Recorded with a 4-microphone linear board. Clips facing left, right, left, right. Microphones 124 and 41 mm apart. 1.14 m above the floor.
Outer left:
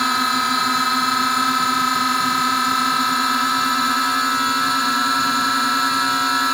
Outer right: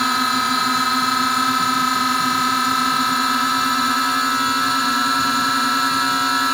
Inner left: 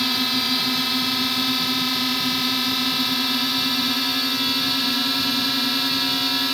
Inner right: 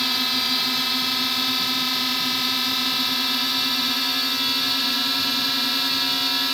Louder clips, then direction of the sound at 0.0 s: Even, inner left 1 dB; centre (ahead or behind).